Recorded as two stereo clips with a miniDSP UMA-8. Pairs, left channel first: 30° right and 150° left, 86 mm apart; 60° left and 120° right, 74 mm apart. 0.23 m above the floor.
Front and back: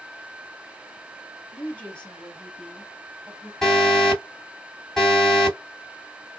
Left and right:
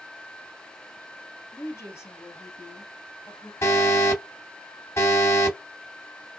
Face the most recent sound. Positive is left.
turn(degrees=55)